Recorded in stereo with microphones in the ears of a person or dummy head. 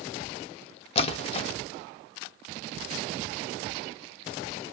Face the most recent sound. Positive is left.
turn(degrees=35)  # may be behind; listen again after turning